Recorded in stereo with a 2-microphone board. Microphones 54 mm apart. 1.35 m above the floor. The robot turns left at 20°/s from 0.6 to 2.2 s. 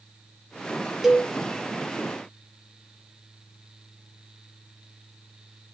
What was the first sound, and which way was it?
A cowbell, 5° right (ahead or behind).